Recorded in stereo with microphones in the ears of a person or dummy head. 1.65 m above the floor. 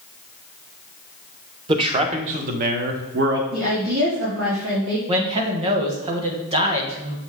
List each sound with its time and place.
1.7 s a man speaking: 30° right (ahead or behind), 1.2 m; by 3.4 s 65° right (ahead or behind), 1.3 m
3.5 s a woman speaking: 60° right (ahead or behind), 3.5 m
5.1 s a man speaking: 25° right (ahead or behind), 1.5 m